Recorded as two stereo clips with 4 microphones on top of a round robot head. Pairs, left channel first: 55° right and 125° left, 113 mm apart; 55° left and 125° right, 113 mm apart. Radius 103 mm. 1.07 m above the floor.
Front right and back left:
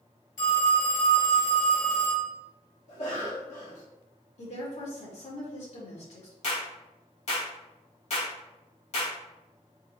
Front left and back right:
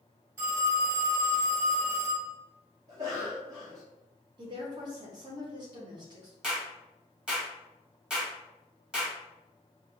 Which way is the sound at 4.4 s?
70° right.